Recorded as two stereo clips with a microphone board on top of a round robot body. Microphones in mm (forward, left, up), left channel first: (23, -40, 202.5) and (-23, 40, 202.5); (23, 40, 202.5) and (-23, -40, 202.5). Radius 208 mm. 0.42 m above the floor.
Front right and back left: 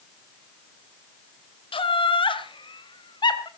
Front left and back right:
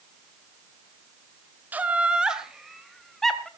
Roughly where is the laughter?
Ahead right.